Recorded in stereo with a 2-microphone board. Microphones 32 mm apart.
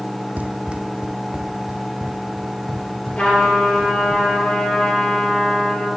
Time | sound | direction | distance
0.4 | running footsteps | 60° right (ahead or behind) | 0.6 m
3.2 | a trumpet | 30° left (ahead or behind) | 3.5 m